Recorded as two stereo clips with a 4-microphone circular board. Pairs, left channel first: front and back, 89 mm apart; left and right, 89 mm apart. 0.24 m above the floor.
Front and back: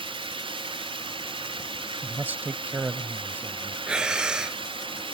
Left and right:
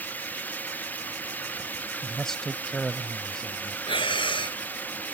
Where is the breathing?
100° left.